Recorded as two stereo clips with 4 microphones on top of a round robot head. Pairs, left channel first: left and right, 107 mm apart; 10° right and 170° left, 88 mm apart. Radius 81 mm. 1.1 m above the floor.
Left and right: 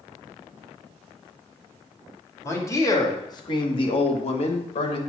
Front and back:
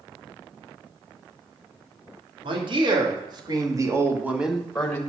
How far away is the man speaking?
About 3 m.